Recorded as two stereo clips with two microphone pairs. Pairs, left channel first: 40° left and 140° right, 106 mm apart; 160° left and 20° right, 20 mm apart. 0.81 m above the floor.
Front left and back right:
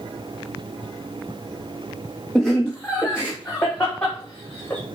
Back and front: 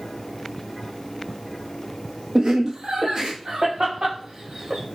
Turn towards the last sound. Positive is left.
turn(degrees=-20)